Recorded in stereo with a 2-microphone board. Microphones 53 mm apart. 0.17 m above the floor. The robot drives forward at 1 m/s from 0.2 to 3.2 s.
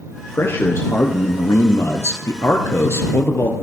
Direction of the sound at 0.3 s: 50° left (ahead or behind).